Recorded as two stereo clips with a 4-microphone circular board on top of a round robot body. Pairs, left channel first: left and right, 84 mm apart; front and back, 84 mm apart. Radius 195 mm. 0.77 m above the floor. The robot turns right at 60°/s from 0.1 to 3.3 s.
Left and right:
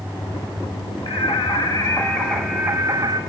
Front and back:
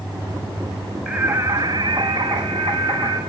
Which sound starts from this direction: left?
Singing, at 1.1 s.